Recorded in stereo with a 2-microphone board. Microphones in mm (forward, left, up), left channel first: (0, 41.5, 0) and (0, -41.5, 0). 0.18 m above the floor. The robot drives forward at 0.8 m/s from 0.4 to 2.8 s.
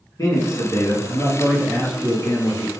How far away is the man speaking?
About 1.6 m.